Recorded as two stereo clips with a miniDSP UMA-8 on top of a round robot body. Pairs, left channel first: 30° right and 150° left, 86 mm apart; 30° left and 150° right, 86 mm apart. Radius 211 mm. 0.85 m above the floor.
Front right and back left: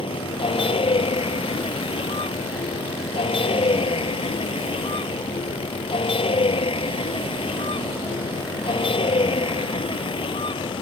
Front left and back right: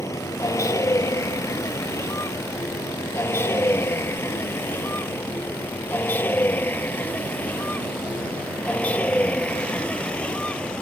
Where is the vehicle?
25° right; by 10.8 s 50° right.